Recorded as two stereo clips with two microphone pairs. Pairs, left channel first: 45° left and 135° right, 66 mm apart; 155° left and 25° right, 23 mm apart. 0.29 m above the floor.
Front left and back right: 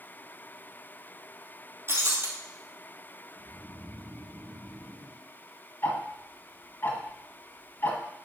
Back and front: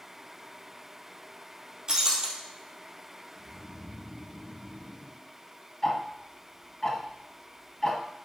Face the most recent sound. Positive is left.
turn(degrees=90)